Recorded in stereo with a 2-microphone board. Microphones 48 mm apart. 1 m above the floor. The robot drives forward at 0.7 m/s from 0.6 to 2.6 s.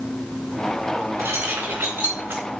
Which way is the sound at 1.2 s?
65° right (ahead or behind).